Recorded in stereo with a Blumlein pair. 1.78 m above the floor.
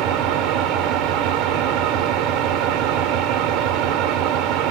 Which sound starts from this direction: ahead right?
An engine running, at 0.0 s.